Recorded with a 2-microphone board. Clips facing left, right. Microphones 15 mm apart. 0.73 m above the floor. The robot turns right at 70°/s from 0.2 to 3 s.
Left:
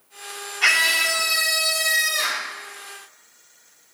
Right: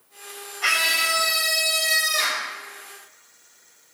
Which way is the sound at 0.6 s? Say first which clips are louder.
Left 3 dB; 115° left.